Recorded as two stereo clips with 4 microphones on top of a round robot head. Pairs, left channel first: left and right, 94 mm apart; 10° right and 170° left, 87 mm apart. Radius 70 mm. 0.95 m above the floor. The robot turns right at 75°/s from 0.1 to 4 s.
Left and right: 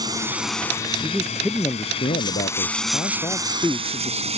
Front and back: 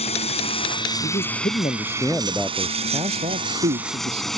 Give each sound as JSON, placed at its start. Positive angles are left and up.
{"t": 0.0, "sound": "running water", "azimuth_deg": -30}
{"t": 1.0, "sound": "a man speaking", "azimuth_deg": -25}